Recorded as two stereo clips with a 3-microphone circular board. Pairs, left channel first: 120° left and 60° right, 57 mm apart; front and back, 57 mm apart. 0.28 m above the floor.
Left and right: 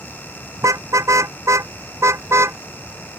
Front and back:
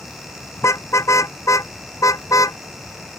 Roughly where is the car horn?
Ahead right.